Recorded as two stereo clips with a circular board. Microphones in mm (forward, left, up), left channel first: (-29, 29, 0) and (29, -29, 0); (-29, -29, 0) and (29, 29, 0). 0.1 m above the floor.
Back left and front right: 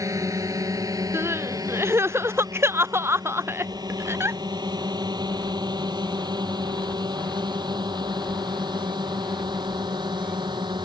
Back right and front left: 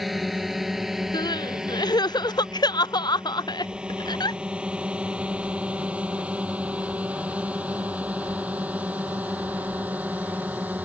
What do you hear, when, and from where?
0.0 s a drone: 45° right; by 10.8 s 25° right
1.1 s crying: 105° right